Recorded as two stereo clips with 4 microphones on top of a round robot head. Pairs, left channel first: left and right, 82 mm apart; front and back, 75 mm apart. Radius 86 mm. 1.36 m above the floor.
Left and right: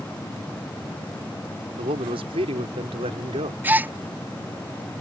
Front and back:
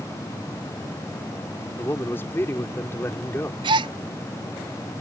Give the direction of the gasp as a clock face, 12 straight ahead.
5 o'clock.